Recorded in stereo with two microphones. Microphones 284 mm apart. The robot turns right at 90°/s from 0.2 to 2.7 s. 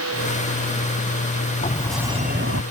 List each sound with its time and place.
1.6 s a sliding door: 150° left; by 2.6 s 120° right